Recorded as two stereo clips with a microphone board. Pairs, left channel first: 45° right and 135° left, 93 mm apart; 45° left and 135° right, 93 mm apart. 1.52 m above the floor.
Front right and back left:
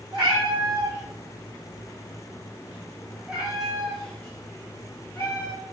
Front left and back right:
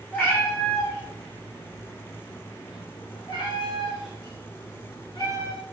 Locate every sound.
0.1 s a cat meowing: 120° left, 2.5 m; by 5.6 s 5° left, 1.7 m